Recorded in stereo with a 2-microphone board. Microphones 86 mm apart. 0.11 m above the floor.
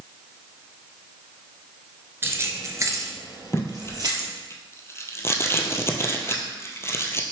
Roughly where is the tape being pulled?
Left.